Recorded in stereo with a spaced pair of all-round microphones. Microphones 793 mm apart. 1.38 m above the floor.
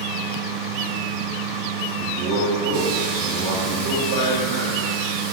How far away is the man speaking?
About 3 m.